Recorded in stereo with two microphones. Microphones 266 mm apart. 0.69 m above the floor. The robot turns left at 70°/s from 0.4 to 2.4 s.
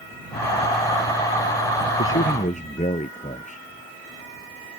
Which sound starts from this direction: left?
A man speaking, at 2.0 s.